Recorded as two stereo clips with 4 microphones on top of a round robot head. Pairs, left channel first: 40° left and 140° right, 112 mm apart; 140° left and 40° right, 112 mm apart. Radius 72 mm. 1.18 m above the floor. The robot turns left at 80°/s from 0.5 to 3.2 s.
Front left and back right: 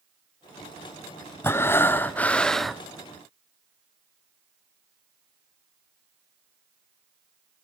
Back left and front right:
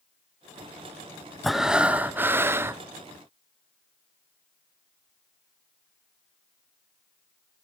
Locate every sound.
1.4 s breathing: 50° left, 0.5 m; by 2.8 s 60° right, 0.5 m